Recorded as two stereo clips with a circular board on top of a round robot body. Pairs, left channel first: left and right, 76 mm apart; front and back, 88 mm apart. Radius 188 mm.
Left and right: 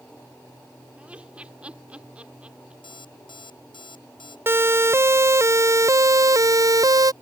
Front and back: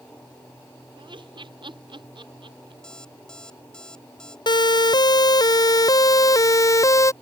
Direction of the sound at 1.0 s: 165° right.